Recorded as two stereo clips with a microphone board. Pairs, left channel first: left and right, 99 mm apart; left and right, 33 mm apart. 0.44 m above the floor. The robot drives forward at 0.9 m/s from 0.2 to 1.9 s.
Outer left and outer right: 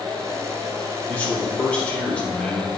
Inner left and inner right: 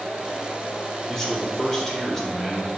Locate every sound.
1.1 s a man speaking: 20° left (ahead or behind), 1.0 m; by 2.7 s 15° left (ahead or behind), 1.4 m